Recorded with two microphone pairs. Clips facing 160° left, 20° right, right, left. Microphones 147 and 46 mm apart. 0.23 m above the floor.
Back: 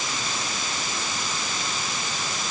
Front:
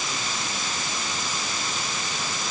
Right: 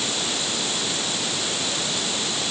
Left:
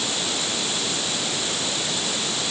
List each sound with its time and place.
Only background noise.